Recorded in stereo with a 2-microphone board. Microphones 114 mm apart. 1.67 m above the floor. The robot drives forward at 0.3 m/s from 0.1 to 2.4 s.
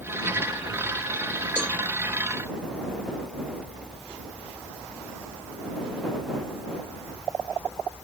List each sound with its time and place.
1.6 s a cowbell: 10° left (ahead or behind)